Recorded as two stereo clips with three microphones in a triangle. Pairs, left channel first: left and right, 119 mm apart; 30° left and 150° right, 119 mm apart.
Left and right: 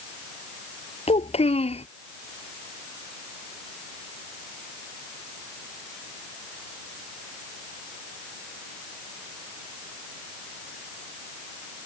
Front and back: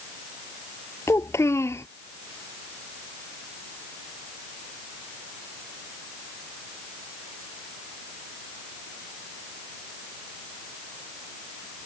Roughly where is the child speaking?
Left.